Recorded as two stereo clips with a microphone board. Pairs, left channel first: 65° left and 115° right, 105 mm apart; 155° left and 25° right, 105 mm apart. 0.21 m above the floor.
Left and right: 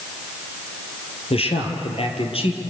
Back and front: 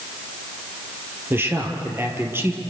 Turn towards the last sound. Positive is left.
turn(degrees=45)